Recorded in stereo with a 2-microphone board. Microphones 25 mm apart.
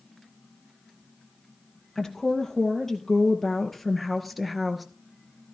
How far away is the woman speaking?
About 3 m.